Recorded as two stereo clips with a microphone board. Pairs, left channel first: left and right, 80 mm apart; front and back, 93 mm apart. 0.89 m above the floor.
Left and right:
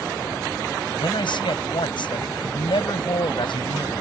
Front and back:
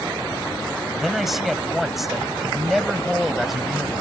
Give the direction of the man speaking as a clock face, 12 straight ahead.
9 o'clock.